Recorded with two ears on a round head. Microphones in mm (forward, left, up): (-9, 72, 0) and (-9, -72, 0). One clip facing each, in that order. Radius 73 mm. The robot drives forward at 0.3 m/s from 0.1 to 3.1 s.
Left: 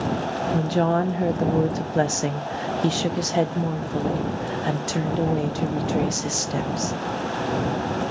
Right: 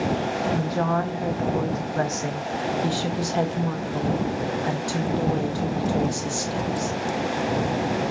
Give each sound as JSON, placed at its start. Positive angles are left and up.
{"t": 0.5, "sound": "a woman speaking", "side_deg": 30, "distance_m": 0.6}